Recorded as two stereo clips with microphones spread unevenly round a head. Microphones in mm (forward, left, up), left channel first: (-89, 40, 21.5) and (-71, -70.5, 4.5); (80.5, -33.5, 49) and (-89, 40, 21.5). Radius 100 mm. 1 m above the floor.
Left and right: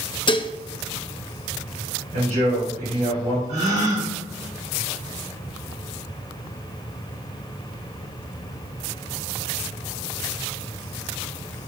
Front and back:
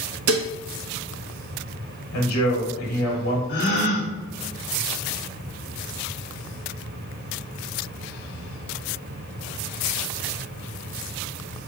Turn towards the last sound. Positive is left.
turn(degrees=-55)